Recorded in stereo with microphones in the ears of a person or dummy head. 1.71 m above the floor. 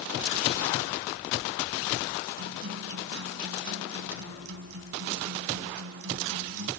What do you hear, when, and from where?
2.4 s a guitar: 70° right (ahead or behind)